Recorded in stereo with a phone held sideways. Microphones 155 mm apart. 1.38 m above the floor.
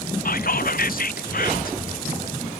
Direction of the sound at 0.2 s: 65° left (ahead or behind).